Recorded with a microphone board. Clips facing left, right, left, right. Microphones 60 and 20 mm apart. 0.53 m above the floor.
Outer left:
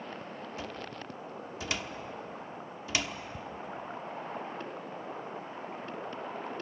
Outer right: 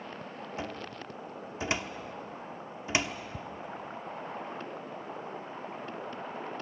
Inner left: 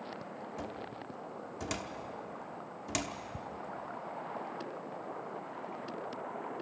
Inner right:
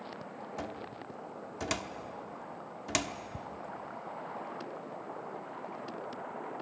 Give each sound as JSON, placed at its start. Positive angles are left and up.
{"t": 0.6, "sound": "a cupboard door", "side_deg": -25, "distance_m": 1.1}
{"t": 3.3, "sound": "ticking", "side_deg": -30, "distance_m": 0.7}